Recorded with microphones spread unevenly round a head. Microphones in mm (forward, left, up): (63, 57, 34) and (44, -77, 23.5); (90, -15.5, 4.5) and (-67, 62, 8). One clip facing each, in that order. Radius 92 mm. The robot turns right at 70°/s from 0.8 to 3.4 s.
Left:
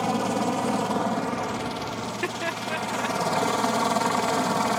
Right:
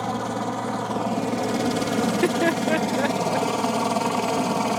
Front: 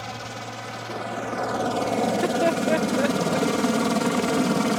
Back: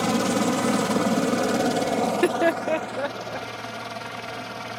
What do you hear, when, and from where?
0.0 s a helicopter: 165° left; by 4.8 s 25° right
2.0 s laughter: 160° right; by 3.5 s 65° right